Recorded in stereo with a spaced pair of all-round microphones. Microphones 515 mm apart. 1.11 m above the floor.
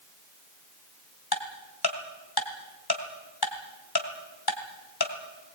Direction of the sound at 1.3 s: 45° left (ahead or behind).